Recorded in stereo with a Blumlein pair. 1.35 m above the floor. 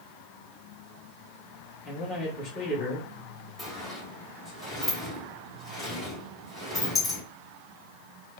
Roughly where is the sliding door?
Ahead.